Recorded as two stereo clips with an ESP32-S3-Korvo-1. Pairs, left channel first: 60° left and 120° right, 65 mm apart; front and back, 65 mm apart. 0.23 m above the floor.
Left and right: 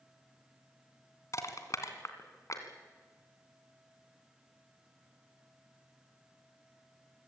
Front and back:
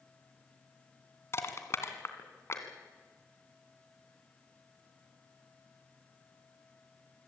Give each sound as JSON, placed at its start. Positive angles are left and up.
{"t": 1.3, "sound": "crushing", "azimuth_deg": 40, "distance_m": 2.5}